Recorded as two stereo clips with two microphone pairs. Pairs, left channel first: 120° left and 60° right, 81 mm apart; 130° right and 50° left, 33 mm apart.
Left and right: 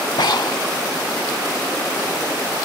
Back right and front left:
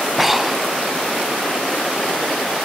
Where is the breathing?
135° left.